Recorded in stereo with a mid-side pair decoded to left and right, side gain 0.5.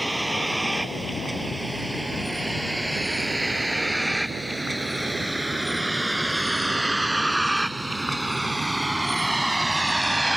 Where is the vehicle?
10° right.